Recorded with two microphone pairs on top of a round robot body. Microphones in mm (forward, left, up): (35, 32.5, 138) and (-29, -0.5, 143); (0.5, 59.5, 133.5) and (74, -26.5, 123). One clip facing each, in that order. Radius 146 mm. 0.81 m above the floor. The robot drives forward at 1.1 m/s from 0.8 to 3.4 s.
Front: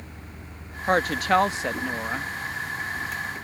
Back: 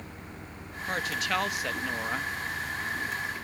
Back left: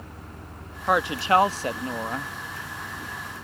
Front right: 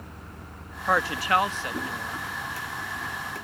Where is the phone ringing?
No phone ringing in this recording.